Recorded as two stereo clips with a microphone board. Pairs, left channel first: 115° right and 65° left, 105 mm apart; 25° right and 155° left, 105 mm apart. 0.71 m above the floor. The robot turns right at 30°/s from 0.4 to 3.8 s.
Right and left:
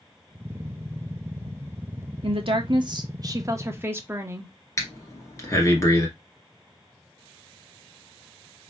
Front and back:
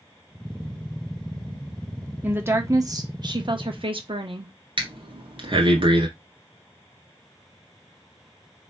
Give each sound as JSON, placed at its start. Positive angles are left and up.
{"t": 2.2, "sound": "a woman speaking", "azimuth_deg": 90, "distance_m": 1.0}
{"t": 4.8, "sound": "breathing", "azimuth_deg": -170, "distance_m": 1.5}